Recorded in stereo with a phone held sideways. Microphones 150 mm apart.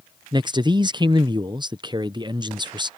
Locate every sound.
0.3 s a man speaking: 30° right (ahead or behind)